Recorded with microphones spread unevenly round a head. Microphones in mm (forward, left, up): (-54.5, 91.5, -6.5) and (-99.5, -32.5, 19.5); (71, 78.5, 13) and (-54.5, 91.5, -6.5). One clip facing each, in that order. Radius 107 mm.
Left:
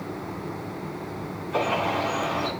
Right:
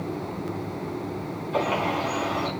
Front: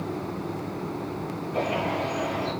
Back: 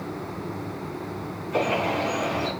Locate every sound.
1.5 s a bird: 165° left, 4 m